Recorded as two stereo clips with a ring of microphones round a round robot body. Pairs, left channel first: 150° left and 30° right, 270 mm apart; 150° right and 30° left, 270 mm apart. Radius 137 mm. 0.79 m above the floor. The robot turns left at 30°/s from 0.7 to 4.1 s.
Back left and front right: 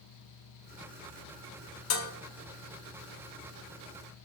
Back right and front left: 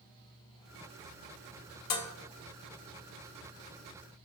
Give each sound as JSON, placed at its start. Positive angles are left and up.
{"t": 1.9, "sound": "dishes clattering", "azimuth_deg": -165, "distance_m": 1.3}